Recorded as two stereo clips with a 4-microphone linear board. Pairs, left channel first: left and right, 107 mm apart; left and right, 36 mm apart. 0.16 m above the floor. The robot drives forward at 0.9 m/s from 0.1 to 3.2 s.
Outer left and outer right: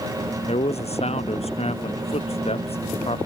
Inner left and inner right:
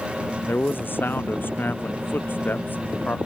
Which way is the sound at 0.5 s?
75° left (ahead or behind).